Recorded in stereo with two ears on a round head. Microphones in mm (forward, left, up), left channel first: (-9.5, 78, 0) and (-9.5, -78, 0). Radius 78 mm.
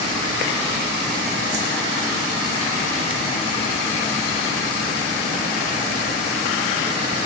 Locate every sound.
1.5 s a whoosh: 25° right (ahead or behind), 0.7 m